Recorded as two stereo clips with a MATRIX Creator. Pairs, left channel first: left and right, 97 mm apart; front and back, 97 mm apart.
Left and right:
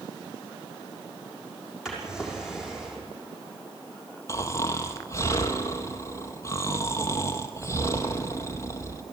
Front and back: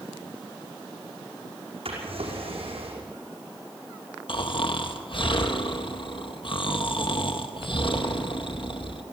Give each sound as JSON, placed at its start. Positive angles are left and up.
{"t": 1.9, "sound": "a drawer", "azimuth_deg": -175, "distance_m": 5.5}
{"t": 4.3, "sound": "snoring", "azimuth_deg": 30, "distance_m": 1.5}